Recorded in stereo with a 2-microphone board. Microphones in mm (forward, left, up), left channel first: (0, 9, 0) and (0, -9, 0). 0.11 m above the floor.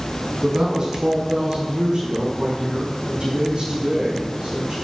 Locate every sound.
0.4 s a woman speaking: 40° right (ahead or behind), 5 m; by 4.8 s 60° right (ahead or behind), 6.5 m